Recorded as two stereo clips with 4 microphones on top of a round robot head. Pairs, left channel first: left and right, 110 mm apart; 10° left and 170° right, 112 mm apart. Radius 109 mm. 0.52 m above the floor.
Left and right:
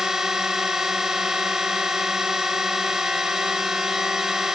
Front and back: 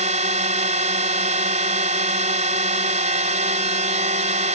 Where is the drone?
175° right.